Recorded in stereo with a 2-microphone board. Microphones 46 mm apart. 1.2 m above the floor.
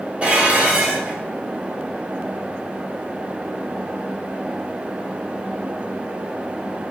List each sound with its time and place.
0.2 s dishes clattering: 30° right (ahead or behind), 1.9 m